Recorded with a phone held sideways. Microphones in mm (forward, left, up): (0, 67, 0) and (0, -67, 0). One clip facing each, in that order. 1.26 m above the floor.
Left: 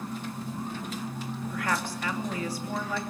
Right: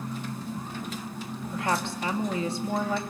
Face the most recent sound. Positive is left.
turn(degrees=-25)  # may be behind; listen again after turning